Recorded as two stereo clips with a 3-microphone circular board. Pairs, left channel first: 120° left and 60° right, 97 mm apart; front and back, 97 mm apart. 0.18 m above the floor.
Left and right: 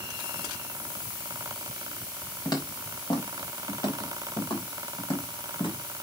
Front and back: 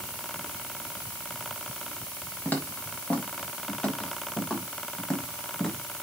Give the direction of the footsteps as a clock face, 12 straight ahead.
10 o'clock.